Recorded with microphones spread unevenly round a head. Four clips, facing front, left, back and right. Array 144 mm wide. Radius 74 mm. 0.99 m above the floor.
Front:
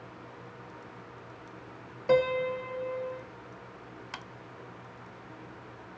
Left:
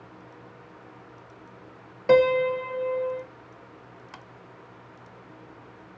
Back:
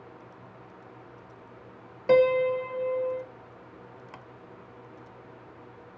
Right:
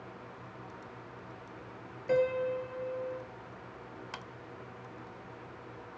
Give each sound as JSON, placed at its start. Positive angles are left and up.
{"t": 2.1, "sound": "a piano", "azimuth_deg": 105, "distance_m": 0.7}